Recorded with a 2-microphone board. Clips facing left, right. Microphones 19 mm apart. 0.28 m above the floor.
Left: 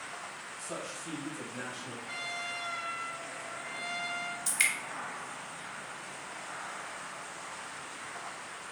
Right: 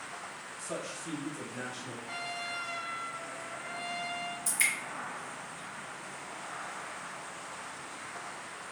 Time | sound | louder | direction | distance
0.6 | a man speaking | right 2 dB | 5° right (ahead or behind) | 1.1 m
2.0 | a trumpet | even | 10° left (ahead or behind) | 0.6 m
4.5 | dripping | left 1 dB | 40° left (ahead or behind) | 0.9 m